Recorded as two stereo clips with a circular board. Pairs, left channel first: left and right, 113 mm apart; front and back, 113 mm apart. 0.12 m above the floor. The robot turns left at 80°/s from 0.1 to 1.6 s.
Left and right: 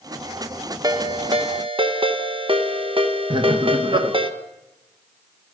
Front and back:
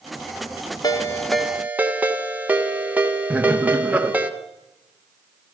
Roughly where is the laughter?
Right.